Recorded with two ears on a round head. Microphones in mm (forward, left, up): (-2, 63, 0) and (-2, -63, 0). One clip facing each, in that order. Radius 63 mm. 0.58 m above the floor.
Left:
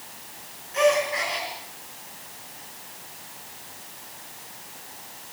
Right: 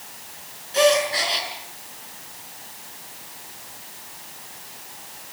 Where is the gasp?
40° right (ahead or behind), 4.5 m.